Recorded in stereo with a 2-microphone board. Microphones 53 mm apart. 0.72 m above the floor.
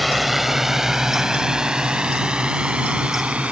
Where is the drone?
Centre (ahead or behind); by 3.5 s 25° right (ahead or behind).